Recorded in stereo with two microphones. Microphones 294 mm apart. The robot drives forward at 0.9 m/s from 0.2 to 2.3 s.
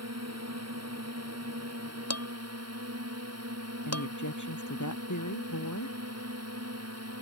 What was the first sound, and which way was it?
A drone, 60° right (ahead or behind).